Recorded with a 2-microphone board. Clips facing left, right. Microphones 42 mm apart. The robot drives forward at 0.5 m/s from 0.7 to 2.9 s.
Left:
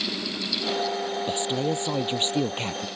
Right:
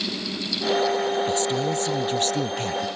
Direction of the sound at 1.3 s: 25° left (ahead or behind).